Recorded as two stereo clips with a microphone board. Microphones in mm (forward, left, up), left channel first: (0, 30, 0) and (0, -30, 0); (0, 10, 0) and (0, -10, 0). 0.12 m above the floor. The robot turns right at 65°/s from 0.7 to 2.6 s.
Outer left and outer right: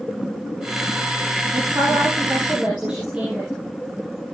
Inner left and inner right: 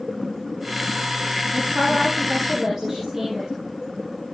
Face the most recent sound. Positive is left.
turn(degrees=-20)